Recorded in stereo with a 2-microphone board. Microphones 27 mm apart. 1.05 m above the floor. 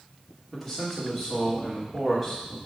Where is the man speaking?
5° right (ahead or behind), 2.5 m.